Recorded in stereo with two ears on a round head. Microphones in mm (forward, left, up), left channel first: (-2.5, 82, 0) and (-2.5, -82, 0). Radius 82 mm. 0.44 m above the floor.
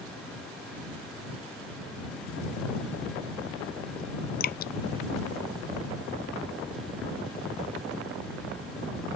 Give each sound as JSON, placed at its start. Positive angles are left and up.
{"t": 4.4, "sound": "dripping", "side_deg": 50}